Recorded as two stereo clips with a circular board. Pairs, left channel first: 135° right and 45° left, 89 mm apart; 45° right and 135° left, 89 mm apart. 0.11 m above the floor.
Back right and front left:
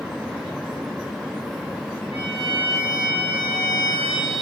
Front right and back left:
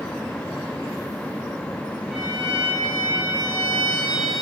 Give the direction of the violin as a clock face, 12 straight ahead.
5 o'clock.